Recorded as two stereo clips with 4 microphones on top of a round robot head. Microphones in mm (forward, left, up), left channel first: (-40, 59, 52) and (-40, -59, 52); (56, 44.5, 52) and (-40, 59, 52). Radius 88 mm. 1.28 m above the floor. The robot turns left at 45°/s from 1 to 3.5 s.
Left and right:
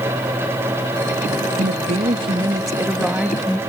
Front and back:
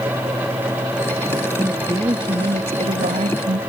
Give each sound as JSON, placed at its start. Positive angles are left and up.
{"t": 1.6, "sound": "a woman speaking", "azimuth_deg": -105}